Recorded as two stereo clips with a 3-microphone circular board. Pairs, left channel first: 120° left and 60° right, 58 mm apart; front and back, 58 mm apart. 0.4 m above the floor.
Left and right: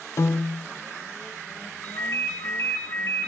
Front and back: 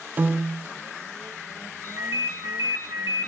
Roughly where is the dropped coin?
No dropped coin in this recording.